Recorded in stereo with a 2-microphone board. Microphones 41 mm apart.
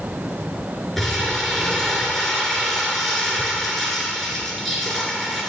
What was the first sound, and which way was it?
Crumpling, 5° left (ahead or behind).